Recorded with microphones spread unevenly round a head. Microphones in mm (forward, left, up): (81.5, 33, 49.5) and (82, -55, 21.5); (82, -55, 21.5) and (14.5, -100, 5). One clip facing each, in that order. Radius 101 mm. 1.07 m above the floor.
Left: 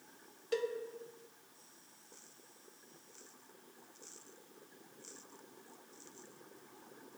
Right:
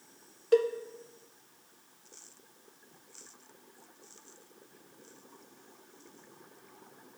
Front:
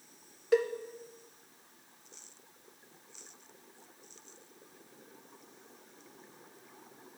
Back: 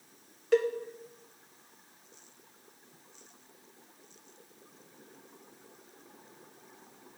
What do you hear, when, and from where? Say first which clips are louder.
0.5 s a cowbell: right 11 dB, back 2 dB; 50° right, 1.2 m